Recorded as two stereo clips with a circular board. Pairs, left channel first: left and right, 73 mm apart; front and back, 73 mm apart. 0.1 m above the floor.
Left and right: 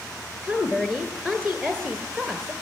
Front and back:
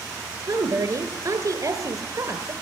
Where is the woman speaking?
175° left, 1.5 m.